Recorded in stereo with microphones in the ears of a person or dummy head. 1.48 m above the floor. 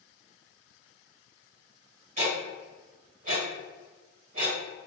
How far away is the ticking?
About 1.5 m.